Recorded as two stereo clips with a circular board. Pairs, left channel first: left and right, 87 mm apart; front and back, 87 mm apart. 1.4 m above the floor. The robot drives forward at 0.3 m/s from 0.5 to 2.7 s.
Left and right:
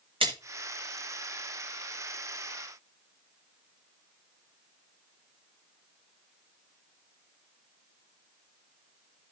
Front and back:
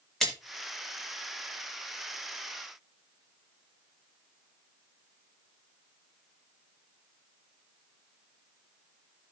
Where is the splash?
85° right, 1.8 m.